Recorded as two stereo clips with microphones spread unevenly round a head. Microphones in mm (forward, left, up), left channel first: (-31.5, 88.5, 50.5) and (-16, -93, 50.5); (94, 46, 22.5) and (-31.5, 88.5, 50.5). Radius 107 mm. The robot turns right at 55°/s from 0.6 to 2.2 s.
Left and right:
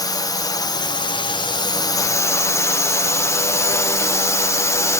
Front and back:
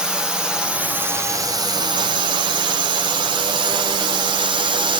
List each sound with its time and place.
0.0 s a drone: 60° left; by 5.0 s 145° left